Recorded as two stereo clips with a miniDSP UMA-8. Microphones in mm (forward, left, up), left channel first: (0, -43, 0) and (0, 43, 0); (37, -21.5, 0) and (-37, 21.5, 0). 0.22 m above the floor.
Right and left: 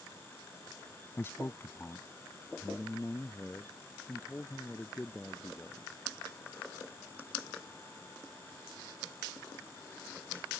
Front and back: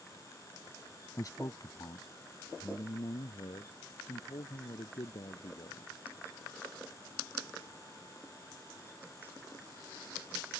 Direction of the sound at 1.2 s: 45° right.